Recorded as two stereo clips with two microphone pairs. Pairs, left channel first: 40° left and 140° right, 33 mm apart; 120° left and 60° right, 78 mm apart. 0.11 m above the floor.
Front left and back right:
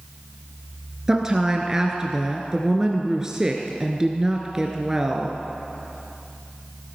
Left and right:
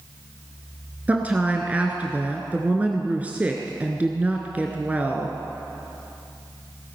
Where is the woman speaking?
100° right, 1.1 m.